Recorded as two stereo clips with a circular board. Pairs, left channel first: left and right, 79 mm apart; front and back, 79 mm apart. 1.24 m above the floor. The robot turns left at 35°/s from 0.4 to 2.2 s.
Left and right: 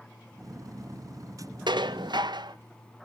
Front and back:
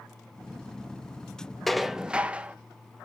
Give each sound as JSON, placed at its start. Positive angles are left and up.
{"t": 1.7, "sound": "dishes clattering", "azimuth_deg": -85, "distance_m": 0.6}